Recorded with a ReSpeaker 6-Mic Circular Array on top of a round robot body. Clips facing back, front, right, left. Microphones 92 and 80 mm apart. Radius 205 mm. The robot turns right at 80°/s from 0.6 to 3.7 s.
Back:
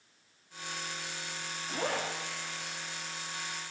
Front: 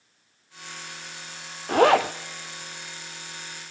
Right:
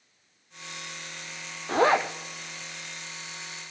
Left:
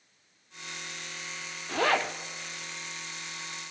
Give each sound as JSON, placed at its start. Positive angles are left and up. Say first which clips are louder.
{"t": 1.7, "sound": "a zipper", "louder": "front 16 dB, right 5 dB", "azimuth_deg": -35, "distance_m": 0.5}